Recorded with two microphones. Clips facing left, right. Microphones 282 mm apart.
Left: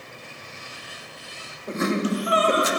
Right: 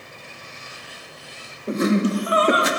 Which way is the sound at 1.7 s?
35° right (ahead or behind).